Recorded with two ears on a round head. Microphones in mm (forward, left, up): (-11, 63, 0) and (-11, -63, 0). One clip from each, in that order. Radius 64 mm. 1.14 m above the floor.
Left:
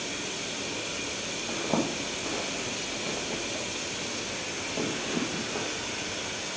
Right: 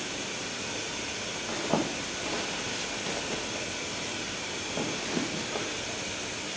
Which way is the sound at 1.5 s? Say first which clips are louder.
Even; 25° right (ahead or behind).